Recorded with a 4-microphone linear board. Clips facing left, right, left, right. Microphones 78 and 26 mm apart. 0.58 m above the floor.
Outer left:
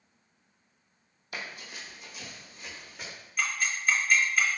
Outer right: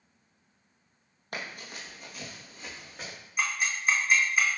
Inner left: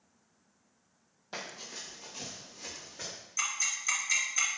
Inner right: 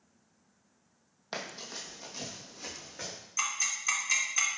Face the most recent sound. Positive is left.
turn(degrees=-15)  # may be behind; listen again after turning